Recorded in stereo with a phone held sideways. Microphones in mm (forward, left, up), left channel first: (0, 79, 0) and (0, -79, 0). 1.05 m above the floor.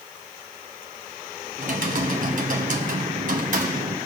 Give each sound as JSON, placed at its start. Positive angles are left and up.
{"t": 1.6, "sound": "typing on a keyboard", "side_deg": -60, "distance_m": 1.6}